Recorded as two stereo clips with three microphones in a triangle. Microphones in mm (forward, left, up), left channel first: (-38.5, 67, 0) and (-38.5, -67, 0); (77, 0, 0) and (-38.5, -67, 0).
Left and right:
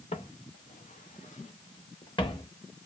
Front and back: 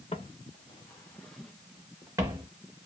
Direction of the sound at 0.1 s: 65° left.